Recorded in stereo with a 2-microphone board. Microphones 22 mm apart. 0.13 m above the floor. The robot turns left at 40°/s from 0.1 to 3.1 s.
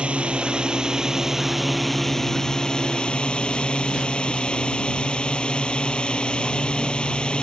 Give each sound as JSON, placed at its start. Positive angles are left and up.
{"t": 0.0, "sound": "a drone", "azimuth_deg": -115}